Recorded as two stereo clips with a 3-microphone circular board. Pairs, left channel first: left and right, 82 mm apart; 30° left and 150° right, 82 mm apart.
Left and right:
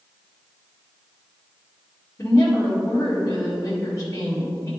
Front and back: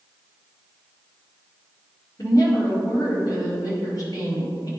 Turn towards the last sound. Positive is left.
turn(degrees=50)